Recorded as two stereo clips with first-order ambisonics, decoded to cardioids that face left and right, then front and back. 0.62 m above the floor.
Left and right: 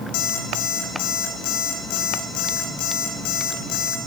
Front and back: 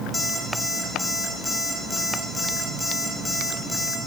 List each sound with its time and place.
0.1 s an alarm clock: 80° left, 2.5 m